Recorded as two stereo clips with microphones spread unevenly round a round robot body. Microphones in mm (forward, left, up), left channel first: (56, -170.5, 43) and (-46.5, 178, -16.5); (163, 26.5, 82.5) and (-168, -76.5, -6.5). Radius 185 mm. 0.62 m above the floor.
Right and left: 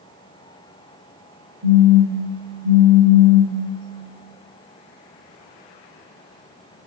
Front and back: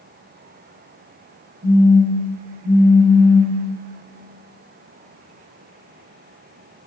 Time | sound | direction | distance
1.6 | a phone buzzing | 125° left | 3.5 m